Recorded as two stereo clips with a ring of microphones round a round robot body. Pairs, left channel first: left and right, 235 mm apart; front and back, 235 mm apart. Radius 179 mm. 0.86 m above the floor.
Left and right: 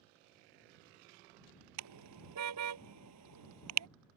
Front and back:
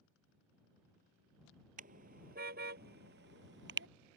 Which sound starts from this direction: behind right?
A car horn, at 1.8 s.